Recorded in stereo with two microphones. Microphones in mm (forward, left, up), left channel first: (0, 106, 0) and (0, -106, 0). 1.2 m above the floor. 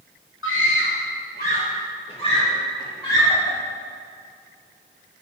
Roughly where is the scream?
Left.